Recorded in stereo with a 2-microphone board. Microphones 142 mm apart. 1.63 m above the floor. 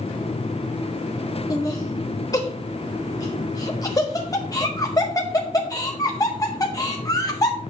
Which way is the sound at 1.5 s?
25° left (ahead or behind).